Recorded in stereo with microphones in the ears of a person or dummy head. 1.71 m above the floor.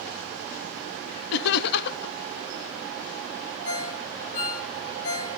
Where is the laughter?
60° left (ahead or behind), 0.6 m.